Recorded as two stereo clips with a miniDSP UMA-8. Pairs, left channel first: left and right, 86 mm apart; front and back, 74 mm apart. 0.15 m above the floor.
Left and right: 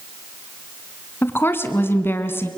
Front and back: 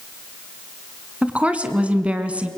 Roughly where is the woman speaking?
Behind left.